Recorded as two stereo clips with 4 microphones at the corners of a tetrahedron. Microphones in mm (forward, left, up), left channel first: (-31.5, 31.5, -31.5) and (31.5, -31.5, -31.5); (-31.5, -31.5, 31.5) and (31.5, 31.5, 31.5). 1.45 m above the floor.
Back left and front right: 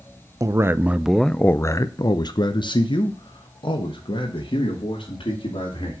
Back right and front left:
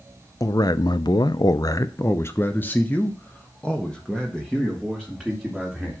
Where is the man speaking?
90° right, 0.6 m; by 6.0 s 140° left, 2.5 m.